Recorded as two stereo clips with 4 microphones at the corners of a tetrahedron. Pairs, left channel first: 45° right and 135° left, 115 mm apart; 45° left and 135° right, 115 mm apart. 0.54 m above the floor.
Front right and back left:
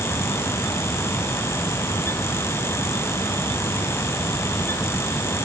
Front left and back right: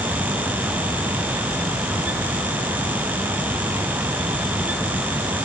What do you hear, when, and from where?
Only background noise.